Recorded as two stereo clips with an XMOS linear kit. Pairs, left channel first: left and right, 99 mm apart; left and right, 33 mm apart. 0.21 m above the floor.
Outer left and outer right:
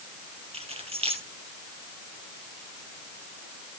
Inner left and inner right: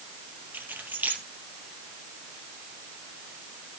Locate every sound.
0.5 s keys jangling: 75° right (ahead or behind), 3.5 m